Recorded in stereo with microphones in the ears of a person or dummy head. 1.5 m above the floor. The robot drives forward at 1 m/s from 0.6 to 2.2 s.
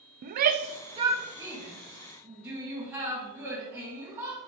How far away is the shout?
About 0.5 m.